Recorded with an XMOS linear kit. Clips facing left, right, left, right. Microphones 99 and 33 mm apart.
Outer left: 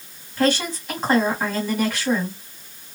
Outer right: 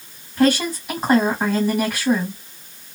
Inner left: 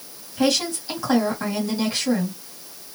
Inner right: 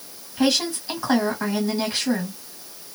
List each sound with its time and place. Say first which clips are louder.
0.4 s a woman speaking: outer right 3 dB, even; 10° right (ahead or behind), 1.4 m